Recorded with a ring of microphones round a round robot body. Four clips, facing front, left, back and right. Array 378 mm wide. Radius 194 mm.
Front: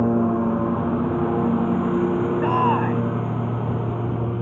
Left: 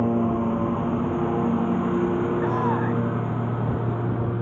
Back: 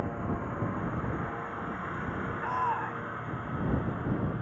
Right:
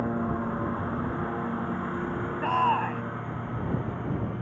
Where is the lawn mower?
25° left; by 4.4 s 35° left.